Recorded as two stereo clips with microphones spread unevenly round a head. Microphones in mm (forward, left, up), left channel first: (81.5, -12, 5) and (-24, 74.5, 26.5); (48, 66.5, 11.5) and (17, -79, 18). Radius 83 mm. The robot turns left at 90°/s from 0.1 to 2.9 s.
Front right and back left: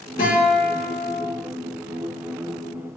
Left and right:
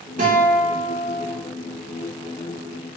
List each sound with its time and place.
0.2 s a guitar: 70° right, 2.5 m; by 1.2 s 165° right, 2.5 m